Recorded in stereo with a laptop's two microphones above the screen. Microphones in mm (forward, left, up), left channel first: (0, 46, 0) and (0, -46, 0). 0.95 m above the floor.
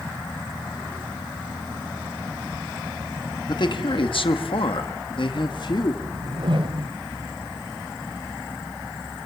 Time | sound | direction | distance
3.5 | a man speaking | 50° left (ahead or behind) | 1.7 m
6.0 | a whoosh | 60° right (ahead or behind) | 1.3 m